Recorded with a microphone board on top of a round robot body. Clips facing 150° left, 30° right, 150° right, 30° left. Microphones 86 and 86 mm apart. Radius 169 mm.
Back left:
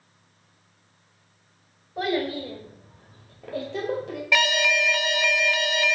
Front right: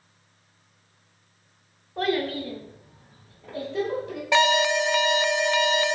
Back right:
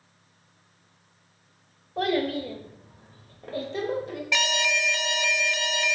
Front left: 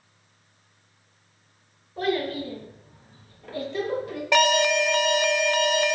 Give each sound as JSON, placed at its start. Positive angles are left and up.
{"t": 2.0, "sound": "a child speaking", "azimuth_deg": -130, "distance_m": 1.7}
{"t": 4.3, "sound": "an alarm", "azimuth_deg": 25, "distance_m": 0.6}